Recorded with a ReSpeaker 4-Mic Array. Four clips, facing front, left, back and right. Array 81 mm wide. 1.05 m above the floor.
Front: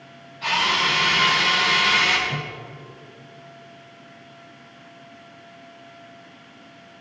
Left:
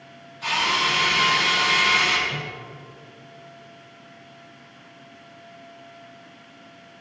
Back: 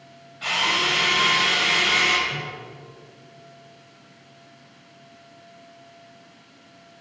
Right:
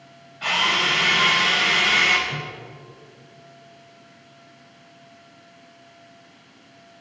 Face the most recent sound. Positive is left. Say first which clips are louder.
# even, front 2 dB
turn(degrees=-20)